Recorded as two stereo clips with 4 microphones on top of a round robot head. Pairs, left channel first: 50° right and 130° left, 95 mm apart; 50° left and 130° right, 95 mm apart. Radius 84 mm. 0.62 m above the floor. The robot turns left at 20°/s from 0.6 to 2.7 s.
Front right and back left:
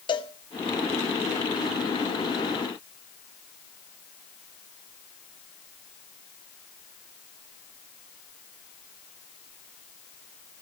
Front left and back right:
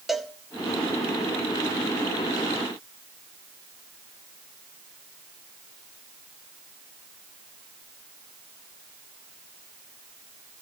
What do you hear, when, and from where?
0.1 s a cowbell: 45° right, 1.4 m